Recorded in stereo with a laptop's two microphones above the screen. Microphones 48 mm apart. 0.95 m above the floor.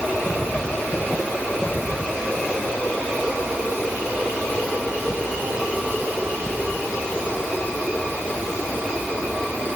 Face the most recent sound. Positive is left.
No sound to turn to.